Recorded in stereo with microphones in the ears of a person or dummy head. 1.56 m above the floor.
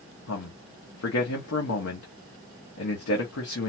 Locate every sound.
0.3 s a man speaking: 85° left, 1.3 m